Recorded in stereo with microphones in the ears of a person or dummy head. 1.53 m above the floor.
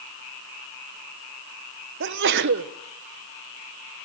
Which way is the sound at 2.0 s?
55° right (ahead or behind).